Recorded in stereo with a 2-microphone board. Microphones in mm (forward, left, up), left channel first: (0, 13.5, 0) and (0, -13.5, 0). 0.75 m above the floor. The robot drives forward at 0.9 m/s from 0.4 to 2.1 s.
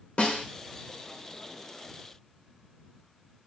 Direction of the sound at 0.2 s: 50° left (ahead or behind).